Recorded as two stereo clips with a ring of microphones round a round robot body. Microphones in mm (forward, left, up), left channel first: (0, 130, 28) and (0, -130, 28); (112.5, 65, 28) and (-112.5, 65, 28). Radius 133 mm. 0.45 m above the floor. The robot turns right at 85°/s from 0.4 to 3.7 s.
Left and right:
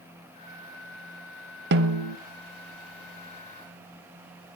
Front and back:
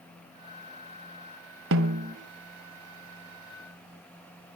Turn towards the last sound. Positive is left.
turn(degrees=30)